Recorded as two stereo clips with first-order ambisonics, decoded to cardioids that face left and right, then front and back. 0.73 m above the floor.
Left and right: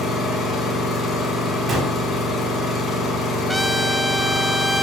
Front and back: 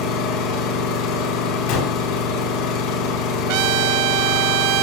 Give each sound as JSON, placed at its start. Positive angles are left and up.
{"t": 0.0, "sound": "an engine running", "azimuth_deg": 20, "distance_m": 4.5}
{"t": 1.7, "sound": "a gunshot", "azimuth_deg": -15, "distance_m": 3.5}
{"t": 3.5, "sound": "a trumpet", "azimuth_deg": 180, "distance_m": 0.6}